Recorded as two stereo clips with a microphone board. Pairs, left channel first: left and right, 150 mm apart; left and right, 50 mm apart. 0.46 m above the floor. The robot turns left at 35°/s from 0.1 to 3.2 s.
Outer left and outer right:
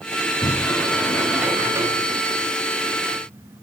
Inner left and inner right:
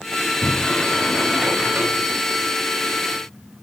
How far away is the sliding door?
About 7.5 m.